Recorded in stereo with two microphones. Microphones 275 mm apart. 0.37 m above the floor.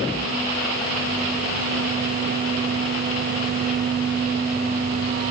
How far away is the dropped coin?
No dropped coin in this recording.